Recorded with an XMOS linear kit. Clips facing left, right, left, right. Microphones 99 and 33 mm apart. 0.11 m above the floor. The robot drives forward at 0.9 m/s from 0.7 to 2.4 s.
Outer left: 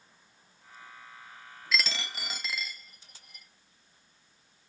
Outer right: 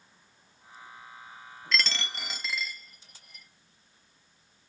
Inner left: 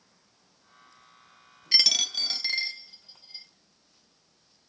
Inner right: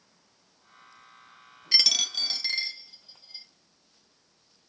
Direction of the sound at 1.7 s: 5° left (ahead or behind).